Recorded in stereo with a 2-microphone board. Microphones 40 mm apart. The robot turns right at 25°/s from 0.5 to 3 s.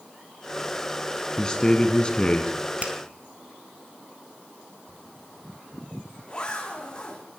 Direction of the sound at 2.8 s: 35° right (ahead or behind).